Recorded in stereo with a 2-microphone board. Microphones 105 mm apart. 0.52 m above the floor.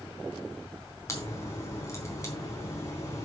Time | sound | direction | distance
1.1 | a crack | 30° left (ahead or behind) | 3.5 m